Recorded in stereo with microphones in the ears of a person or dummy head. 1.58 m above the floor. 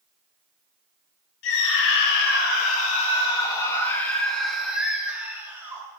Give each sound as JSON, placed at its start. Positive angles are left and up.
{"t": 1.4, "sound": "a scream", "side_deg": 70, "distance_m": 2.0}